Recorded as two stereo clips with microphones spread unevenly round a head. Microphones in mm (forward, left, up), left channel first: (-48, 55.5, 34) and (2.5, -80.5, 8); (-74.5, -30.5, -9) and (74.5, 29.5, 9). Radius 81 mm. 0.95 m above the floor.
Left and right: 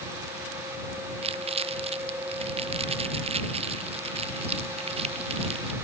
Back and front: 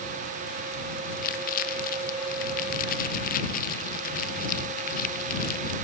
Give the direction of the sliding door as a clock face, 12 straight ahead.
No sliding door in this recording.